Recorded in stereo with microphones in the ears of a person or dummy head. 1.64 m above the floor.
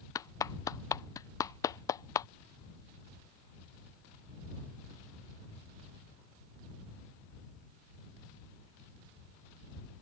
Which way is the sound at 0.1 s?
15° left (ahead or behind).